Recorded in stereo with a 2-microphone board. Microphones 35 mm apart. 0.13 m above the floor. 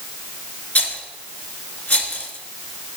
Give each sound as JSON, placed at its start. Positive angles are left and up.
{"t": 0.8, "sound": "a rattle", "side_deg": 45, "distance_m": 1.2}